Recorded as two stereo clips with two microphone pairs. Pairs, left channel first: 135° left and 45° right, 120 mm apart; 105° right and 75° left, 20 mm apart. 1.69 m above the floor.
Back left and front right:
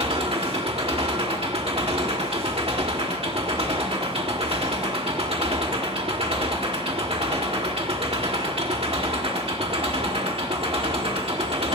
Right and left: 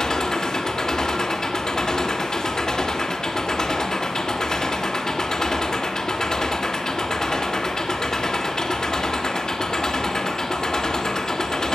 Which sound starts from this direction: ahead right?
An engine running, at 0.0 s.